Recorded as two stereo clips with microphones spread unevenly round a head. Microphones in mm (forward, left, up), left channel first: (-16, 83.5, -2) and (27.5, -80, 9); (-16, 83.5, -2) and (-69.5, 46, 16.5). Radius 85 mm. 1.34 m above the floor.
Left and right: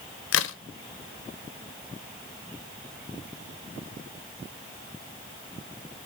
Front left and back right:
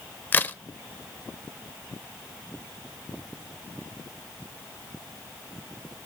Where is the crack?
100° left, 0.5 m.